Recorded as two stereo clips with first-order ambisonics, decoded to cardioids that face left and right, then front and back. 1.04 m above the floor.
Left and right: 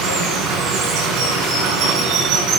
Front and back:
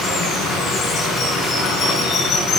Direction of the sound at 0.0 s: 60° right.